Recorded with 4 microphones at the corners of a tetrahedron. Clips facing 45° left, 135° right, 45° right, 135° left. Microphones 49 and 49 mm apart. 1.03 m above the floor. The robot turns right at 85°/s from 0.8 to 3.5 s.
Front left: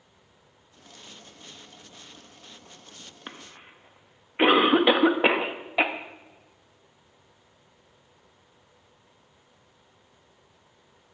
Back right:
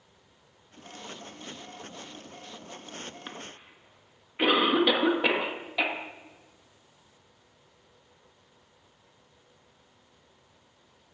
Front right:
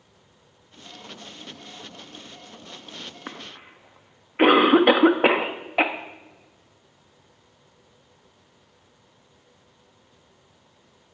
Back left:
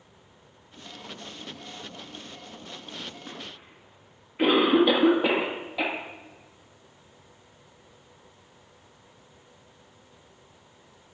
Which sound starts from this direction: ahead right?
A cough, at 3.3 s.